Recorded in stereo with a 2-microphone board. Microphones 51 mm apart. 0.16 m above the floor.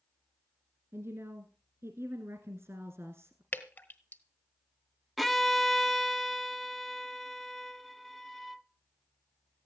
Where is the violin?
Centre (ahead or behind), 0.6 m.